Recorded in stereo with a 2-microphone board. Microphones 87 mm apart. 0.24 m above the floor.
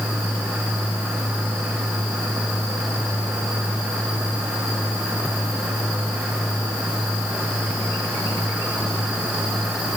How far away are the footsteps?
I don't hear footsteps.